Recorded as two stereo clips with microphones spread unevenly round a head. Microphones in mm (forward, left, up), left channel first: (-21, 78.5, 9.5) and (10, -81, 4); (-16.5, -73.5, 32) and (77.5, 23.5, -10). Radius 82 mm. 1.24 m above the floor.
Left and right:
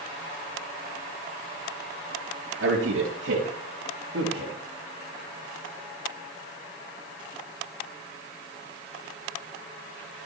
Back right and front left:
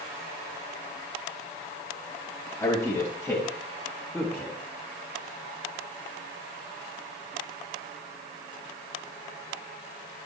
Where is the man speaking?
65° right, 2.5 m; by 4.6 s 45° right, 1.9 m.